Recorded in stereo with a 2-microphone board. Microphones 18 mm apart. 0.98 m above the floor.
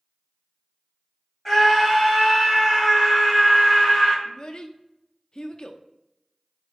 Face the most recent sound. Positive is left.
turn(degrees=40)  # may be behind; listen again after turning